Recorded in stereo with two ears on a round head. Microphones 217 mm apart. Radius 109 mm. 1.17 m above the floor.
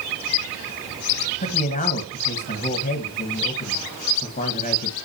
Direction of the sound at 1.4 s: 30° left (ahead or behind).